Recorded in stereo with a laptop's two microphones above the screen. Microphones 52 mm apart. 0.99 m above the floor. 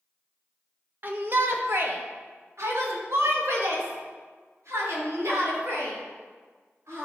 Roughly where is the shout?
Right.